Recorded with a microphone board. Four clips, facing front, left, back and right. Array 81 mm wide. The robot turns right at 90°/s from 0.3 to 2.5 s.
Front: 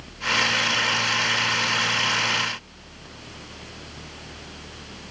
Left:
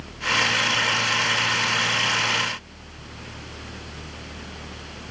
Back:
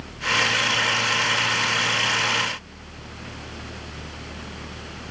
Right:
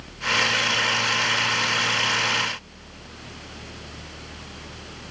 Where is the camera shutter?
No camera shutter in this recording.